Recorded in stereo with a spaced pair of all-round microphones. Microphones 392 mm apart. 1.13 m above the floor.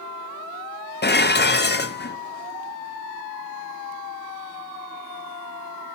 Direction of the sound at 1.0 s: 25° left (ahead or behind).